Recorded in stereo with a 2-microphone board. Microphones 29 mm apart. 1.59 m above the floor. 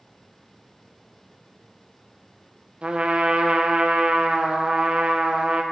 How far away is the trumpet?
About 0.6 m.